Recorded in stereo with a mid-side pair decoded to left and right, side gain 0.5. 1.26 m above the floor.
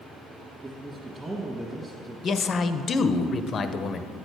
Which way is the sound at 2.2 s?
45° left.